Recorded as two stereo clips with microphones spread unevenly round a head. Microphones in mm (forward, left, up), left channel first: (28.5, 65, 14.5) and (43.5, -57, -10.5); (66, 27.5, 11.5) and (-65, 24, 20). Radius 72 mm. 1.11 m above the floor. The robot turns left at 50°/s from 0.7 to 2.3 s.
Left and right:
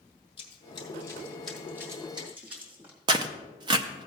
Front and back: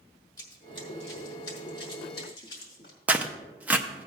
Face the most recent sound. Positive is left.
turn(degrees=-100)